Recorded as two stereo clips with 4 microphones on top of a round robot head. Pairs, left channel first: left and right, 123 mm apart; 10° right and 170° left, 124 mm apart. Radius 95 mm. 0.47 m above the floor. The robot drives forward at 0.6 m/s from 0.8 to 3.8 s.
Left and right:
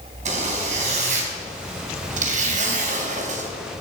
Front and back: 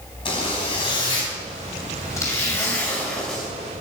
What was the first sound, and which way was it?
A zipper, 60° right.